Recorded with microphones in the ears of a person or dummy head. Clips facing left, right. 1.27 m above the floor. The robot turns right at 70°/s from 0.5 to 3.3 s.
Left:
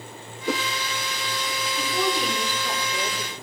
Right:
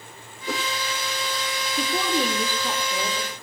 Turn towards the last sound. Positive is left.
turn(degrees=5)